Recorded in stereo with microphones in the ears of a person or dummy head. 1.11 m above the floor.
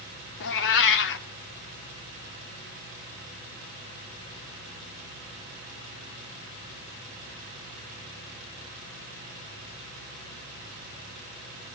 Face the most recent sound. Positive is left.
turn(degrees=65)  # may be behind; listen again after turning